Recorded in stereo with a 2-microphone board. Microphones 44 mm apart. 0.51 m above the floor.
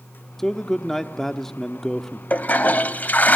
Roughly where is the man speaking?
Centre.